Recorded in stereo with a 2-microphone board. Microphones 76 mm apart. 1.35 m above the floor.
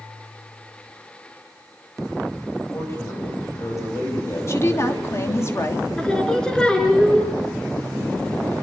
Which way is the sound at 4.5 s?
40° left (ahead or behind).